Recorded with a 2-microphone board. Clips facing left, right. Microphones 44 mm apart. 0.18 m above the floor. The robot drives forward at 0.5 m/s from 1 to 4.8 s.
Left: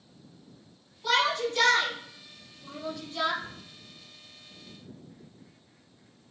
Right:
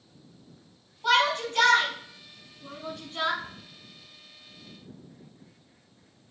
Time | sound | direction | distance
1.0 | a shout | 30° right (ahead or behind) | 1.1 m
3.4 | a cupboard door | 30° right (ahead or behind) | 1.0 m